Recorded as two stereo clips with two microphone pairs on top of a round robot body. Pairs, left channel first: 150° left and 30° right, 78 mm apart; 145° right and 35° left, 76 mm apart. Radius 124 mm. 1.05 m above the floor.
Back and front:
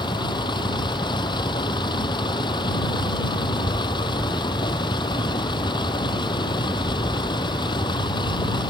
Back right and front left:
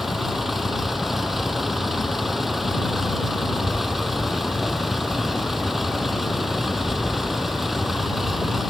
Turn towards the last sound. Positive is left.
turn(degrees=125)